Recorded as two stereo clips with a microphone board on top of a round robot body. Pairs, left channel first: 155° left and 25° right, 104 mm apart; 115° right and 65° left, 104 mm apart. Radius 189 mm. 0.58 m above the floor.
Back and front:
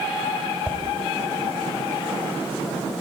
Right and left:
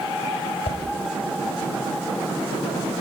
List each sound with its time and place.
0.7 s a whoosh: 100° right, 3 m